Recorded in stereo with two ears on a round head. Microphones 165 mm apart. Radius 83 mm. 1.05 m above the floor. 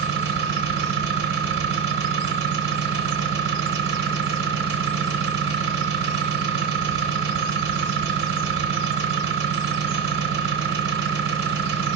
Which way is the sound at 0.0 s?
60° right (ahead or behind).